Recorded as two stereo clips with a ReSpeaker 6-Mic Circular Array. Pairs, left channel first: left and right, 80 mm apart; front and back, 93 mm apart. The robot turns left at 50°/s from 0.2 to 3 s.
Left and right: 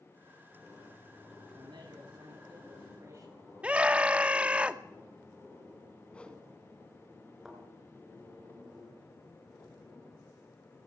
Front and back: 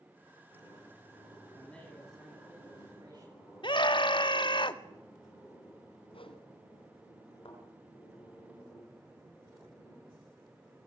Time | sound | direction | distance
1.6 | a man speaking | 70° right | 8.5 m
3.6 | a scream | 15° right | 1.7 m
6.1 | a whoosh | 15° left | 2.5 m
7.5 | a thud | 5° right | 6.5 m